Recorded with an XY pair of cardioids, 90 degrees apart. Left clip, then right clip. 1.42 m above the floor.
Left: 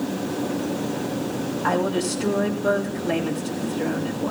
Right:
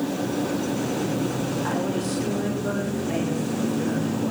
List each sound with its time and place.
1.6 s a woman speaking: 60° left, 6.5 m